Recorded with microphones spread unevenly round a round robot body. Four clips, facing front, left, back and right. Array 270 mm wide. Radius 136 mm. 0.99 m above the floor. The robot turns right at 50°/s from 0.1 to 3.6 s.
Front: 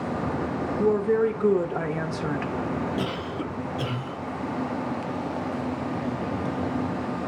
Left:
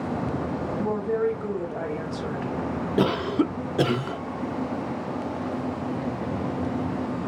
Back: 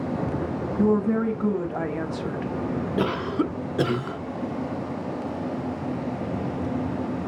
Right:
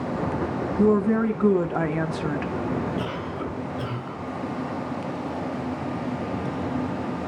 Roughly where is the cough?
Left.